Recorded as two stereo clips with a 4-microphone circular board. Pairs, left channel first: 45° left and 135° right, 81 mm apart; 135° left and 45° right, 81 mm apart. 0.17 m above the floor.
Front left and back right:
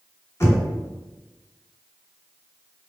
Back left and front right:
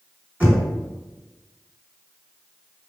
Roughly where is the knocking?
Ahead.